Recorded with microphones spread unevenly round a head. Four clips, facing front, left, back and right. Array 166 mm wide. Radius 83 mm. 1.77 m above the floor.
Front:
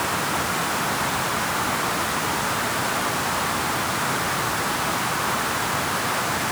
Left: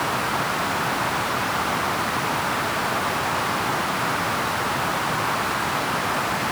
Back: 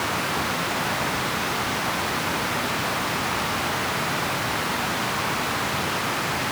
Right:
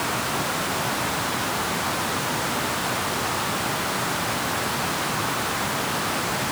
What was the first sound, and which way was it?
Only background noise.